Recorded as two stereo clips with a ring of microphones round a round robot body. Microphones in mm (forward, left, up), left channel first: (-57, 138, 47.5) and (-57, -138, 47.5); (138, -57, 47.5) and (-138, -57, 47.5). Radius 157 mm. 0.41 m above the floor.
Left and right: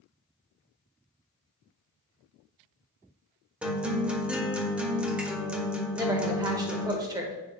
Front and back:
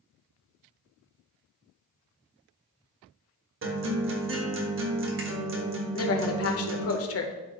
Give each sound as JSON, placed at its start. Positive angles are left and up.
{"t": 3.6, "sound": "a guitar", "azimuth_deg": -175, "distance_m": 1.4}
{"t": 5.9, "sound": "a woman speaking", "azimuth_deg": -15, "distance_m": 1.2}